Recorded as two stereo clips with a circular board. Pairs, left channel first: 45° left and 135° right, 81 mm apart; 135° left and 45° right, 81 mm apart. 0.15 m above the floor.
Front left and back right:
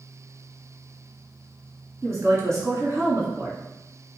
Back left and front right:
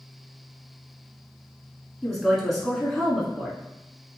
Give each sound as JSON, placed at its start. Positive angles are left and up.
{"t": 2.0, "sound": "a woman speaking", "azimuth_deg": -140, "distance_m": 1.5}